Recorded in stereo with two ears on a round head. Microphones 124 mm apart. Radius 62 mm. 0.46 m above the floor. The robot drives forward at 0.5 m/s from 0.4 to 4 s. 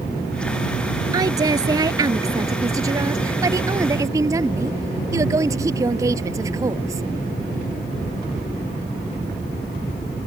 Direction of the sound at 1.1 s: 30° right (ahead or behind).